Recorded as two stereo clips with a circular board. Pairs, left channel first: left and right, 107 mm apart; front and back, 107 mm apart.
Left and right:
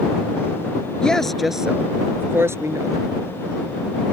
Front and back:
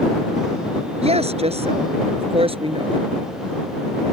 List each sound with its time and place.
1.0 s a woman speaking: 170° left; by 3.1 s 145° right